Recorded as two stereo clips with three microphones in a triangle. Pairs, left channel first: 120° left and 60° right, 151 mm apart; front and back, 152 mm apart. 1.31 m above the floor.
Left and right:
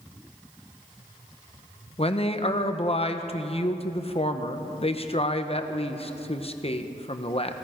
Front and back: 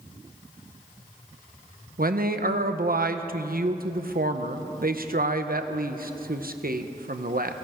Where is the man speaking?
165° left, 0.9 m.